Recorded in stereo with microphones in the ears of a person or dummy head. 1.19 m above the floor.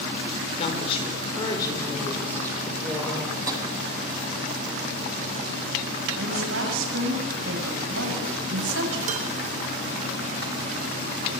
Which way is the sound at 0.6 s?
35° left (ahead or behind).